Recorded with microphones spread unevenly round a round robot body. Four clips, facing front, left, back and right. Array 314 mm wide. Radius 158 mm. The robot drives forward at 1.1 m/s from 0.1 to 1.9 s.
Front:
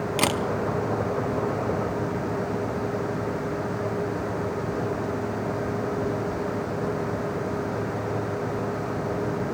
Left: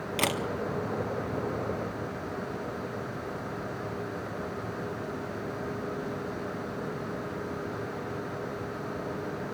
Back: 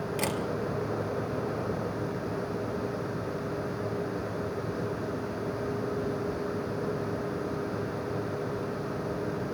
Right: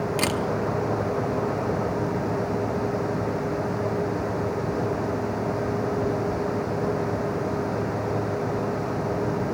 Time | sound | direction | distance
0.2 | a camera shutter | 10° right | 1.1 m